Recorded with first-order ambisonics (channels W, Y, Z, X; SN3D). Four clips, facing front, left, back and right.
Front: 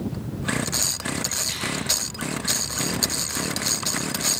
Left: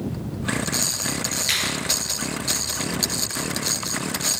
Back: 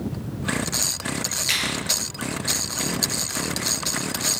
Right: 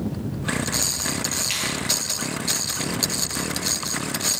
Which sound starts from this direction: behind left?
A finger snap, at 1.5 s.